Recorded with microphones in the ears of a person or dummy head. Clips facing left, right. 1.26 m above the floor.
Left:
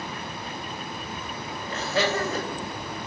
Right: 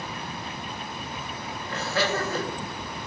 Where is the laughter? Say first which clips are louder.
Left 1 dB; 20° left (ahead or behind), 0.8 m.